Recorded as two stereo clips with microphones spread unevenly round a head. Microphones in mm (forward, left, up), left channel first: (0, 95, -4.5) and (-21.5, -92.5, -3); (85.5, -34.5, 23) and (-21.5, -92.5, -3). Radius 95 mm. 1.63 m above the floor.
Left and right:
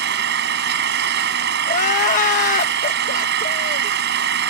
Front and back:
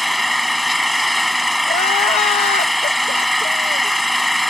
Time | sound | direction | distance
0.0 | an engine running | 60° right | ?
1.7 | crying | 40° left | ?